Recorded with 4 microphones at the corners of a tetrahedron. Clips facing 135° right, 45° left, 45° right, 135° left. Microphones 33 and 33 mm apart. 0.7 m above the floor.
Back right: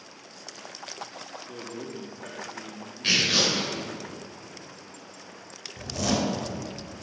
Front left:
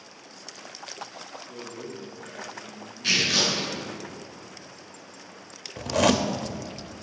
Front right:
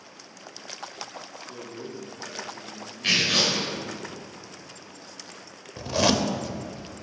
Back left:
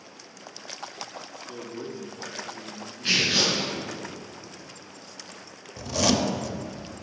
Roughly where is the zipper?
Ahead left.